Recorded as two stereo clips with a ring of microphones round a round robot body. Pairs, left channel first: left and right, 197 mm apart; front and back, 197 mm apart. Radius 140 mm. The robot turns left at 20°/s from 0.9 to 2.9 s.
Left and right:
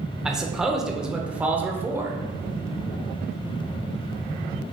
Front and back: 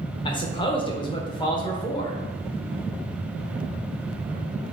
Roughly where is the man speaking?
Ahead.